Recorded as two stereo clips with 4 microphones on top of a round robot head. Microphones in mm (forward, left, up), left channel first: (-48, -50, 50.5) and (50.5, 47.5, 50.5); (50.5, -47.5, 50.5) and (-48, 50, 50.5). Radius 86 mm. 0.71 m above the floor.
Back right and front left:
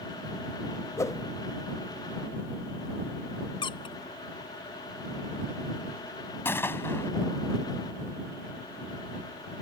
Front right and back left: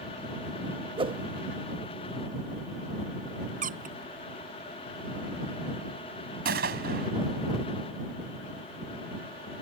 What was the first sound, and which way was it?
A whoosh, 165° left.